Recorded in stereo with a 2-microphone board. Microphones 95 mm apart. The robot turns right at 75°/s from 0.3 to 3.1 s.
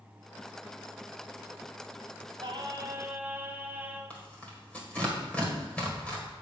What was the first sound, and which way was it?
Singing, 70° right.